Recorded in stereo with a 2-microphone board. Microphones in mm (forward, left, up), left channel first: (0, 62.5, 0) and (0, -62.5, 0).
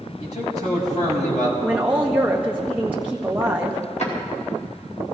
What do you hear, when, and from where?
0.2 s a man speaking: 80° left, 5.5 m
1.6 s a woman speaking: 15° right (ahead or behind), 1.0 m
4.0 s a drawer: 65° left (ahead or behind), 4 m